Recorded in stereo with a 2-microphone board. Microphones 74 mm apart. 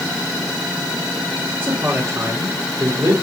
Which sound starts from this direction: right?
A man speaking, at 1.6 s.